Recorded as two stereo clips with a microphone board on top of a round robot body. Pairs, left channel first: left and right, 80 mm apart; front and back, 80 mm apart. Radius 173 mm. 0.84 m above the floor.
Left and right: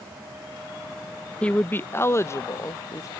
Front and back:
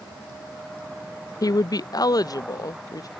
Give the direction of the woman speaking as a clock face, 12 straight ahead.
11 o'clock.